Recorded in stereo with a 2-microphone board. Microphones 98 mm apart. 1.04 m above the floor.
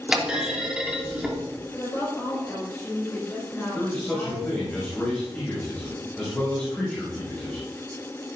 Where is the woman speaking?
20° left (ahead or behind), 5 m.